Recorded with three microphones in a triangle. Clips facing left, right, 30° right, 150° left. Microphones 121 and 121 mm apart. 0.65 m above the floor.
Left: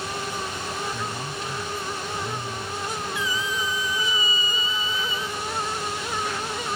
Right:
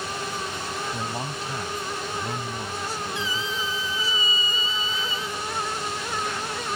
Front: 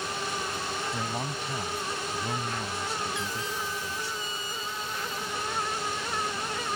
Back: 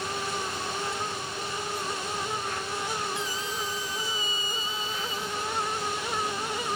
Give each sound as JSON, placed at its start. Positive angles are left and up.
{"t": 0.9, "sound": "a man speaking", "azimuth_deg": -35}
{"t": 3.1, "sound": "a squeak", "azimuth_deg": -30}